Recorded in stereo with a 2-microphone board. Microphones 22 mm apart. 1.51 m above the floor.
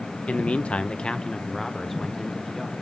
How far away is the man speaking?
About 0.8 m.